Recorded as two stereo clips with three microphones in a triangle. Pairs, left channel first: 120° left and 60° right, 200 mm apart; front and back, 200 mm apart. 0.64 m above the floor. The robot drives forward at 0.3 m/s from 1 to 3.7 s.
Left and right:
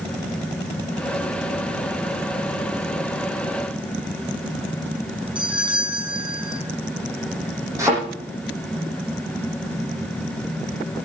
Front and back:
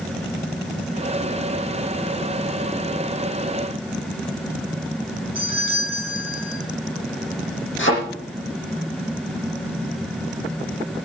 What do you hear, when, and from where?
5.3 s a doorbell: 5° left, 7 m
7.8 s a thud: 15° left, 10 m